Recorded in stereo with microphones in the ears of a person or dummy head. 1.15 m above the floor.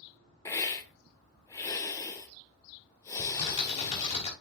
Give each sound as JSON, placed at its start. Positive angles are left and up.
{"t": 0.5, "sound": "a hiss", "side_deg": 20, "distance_m": 1.3}
{"t": 3.2, "sound": "typing on a keyboard", "side_deg": 35, "distance_m": 2.5}